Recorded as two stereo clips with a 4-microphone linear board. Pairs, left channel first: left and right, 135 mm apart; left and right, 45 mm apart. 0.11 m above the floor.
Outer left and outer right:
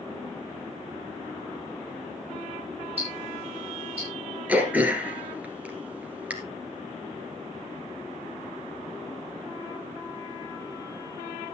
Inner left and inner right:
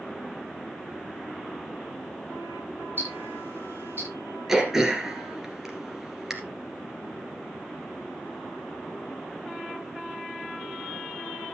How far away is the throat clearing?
About 2 m.